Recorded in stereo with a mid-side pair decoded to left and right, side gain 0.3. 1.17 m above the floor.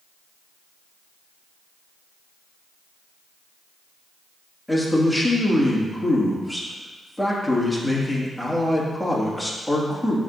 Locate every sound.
4.7 s a man speaking: 5° left, 2 m